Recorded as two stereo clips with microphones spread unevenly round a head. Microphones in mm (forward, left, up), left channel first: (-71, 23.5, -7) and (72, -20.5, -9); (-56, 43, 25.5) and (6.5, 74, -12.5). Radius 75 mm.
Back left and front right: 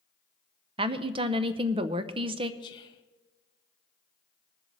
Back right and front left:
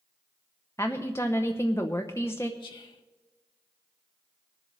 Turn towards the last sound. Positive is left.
turn(degrees=-155)